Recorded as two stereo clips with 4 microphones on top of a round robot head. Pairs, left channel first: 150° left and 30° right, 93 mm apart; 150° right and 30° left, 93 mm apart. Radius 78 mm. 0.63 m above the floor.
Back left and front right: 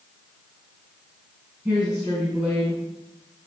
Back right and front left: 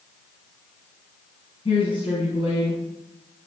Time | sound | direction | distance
1.6 | a woman speaking | 115° right | 6.5 m